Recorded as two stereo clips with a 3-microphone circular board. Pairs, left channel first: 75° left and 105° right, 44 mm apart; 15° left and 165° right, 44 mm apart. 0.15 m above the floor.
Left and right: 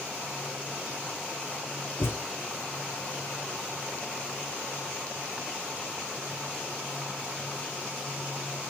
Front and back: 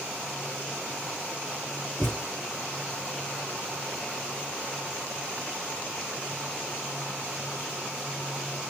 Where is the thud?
95° left, 3.5 m.